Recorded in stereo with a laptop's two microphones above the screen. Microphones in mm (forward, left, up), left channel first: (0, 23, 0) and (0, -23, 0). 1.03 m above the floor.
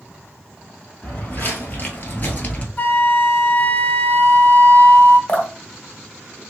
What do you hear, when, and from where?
1.0 s footsteps: 40° left (ahead or behind), 1.5 m; by 2.7 s 25° left (ahead or behind), 1.2 m
2.8 s a flute: 40° left (ahead or behind), 0.9 m
5.3 s dripping: 25° left (ahead or behind), 0.7 m